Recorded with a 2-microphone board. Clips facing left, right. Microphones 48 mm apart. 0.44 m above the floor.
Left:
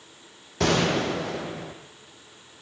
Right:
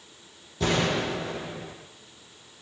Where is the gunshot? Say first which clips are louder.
Left 3 dB; 75° left (ahead or behind), 7 m.